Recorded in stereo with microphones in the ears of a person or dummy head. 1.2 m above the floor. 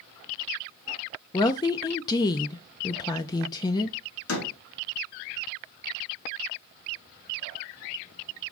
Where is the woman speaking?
20° left (ahead or behind), 0.5 m.